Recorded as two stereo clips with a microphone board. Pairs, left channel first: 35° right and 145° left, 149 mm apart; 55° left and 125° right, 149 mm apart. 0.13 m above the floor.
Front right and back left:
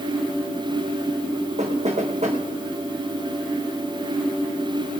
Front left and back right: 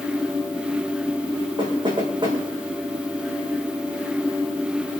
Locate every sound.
1.6 s knocking: straight behind, 6 m